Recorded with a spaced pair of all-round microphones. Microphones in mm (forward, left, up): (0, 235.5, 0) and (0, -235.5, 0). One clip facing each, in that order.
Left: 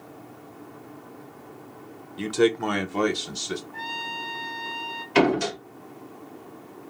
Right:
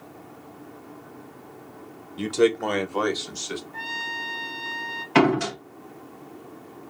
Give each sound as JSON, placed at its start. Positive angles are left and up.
{"t": 2.2, "sound": "a man speaking", "side_deg": -5, "distance_m": 0.7}
{"t": 3.7, "sound": "a trumpet", "side_deg": -40, "distance_m": 1.2}
{"t": 5.2, "sound": "a door slam", "side_deg": -70, "distance_m": 1.4}